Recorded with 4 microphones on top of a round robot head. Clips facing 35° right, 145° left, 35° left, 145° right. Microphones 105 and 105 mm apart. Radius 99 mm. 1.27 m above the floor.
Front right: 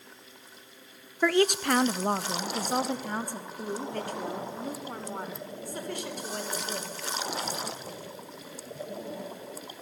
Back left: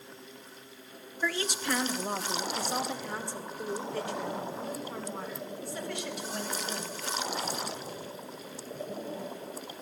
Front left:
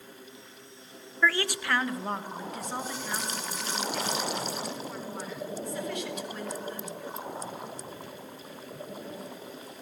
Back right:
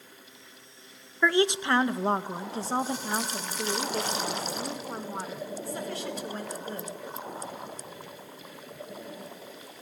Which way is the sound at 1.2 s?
70° right.